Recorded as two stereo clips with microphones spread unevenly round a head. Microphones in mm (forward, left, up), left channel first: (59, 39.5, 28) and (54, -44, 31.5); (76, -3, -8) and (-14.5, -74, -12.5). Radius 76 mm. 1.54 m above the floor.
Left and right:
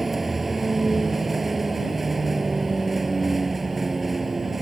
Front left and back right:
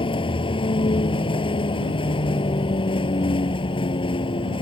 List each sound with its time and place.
0.0 s a vehicle: 5° right